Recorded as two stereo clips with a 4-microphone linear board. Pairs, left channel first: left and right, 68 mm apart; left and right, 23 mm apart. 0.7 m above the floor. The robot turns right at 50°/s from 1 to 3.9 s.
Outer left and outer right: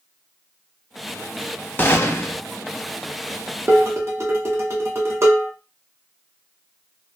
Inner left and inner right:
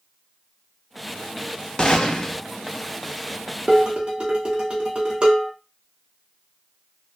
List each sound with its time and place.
1.8 s a gunshot: 30° left (ahead or behind), 0.6 m; by 2.4 s 40° left (ahead or behind), 0.6 m
3.7 s dishes clattering: 30° right (ahead or behind), 1.0 m; by 5.5 s 40° right (ahead or behind), 1.0 m